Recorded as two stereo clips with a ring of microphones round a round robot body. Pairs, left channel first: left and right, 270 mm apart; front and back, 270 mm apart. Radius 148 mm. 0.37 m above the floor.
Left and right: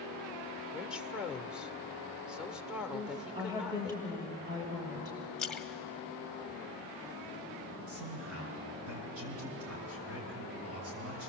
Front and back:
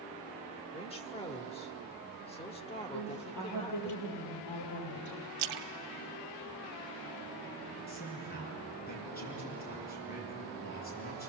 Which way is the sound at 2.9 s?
15° right.